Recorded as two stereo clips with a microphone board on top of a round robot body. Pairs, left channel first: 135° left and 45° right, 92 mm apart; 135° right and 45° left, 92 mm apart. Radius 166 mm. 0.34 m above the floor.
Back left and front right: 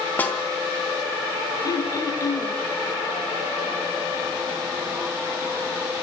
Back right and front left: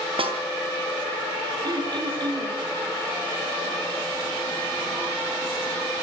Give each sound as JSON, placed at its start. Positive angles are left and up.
{"t": 0.2, "sound": "a snare drum", "azimuth_deg": 65, "distance_m": 4.0}
{"t": 1.6, "sound": "throat clearing", "azimuth_deg": 85, "distance_m": 3.0}